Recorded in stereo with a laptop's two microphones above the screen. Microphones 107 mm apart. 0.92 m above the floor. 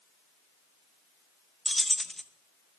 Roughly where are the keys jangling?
Centre.